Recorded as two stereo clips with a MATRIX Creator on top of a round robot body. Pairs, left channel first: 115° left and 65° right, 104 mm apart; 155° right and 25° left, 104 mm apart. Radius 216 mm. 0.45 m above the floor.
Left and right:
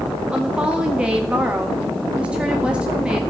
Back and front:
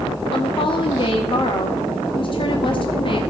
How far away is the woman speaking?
About 1.1 m.